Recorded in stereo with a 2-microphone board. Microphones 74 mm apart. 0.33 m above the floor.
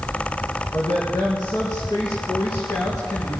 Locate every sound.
0.7 s a woman speaking: 75° left (ahead or behind), 3 m; by 3.4 s 55° left (ahead or behind), 3.5 m